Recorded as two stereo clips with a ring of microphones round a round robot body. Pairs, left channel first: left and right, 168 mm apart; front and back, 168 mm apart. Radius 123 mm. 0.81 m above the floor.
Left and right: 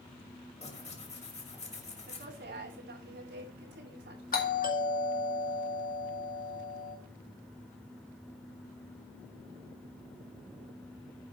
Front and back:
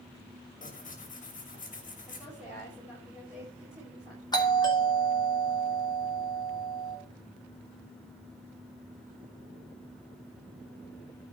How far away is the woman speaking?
About 4.5 m.